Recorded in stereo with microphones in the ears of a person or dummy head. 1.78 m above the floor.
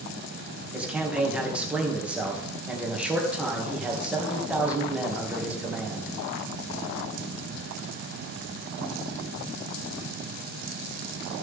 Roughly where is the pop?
No pop in this recording.